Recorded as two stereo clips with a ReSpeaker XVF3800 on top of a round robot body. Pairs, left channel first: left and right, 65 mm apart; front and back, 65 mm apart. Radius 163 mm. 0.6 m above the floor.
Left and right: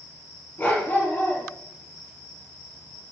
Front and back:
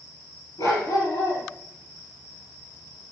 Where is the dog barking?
30° left, 3.5 m.